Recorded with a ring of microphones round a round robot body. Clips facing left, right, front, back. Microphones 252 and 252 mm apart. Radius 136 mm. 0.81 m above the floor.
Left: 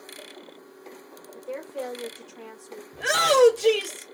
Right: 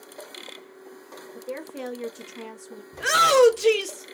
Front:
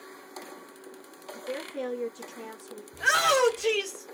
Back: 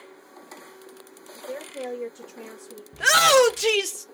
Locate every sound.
1.4 s a woman speaking: 40° right, 1.2 m; by 2.8 s 115° right, 1.2 m
2.9 s a shout: 165° right, 0.6 m